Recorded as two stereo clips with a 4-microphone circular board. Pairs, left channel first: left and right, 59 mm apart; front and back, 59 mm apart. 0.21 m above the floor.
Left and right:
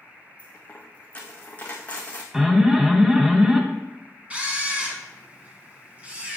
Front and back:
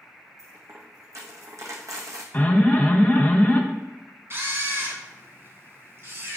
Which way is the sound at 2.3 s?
25° right.